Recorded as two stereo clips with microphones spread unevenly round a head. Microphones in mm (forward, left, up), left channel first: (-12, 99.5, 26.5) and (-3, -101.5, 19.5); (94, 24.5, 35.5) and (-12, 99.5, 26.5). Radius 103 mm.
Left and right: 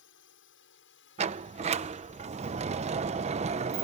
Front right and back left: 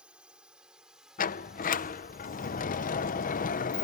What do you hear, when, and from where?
0.0 s a drone: 65° left; by 3.9 s 55° left
1.2 s a sliding door: 25° right